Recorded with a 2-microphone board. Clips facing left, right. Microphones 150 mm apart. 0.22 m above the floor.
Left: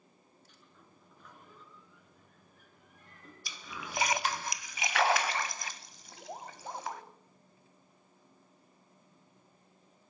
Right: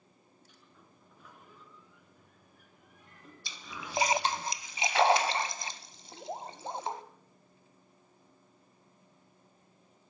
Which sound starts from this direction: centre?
A sliding door, at 0.5 s.